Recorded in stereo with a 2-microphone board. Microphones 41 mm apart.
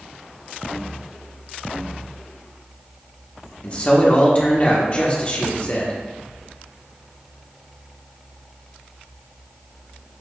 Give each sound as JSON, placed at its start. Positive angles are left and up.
{"t": 3.6, "sound": "a man speaking", "side_deg": 30, "distance_m": 0.8}